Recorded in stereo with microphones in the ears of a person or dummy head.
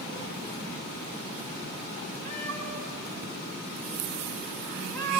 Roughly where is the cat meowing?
Centre.